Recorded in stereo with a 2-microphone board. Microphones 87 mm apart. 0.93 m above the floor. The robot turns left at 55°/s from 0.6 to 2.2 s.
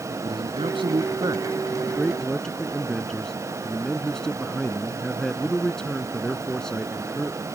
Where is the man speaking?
100° right; by 7.4 s 175° left.